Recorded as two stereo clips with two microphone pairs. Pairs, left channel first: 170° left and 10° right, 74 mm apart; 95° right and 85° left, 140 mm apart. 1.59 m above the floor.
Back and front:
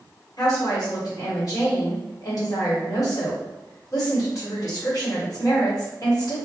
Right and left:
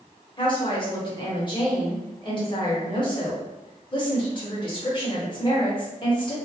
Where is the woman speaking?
150° right, 1.2 m.